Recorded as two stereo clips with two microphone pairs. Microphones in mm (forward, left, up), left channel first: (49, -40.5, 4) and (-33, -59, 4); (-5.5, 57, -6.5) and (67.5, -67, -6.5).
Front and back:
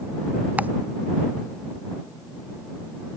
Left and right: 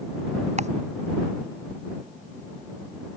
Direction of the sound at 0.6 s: 95° right.